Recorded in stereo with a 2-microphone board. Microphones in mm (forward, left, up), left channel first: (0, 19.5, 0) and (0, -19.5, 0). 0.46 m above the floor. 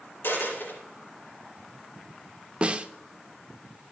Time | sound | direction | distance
0.2 | a dropped coin | 70° left (ahead or behind) | 4 m
2.6 | a snare drum | 30° right (ahead or behind) | 0.6 m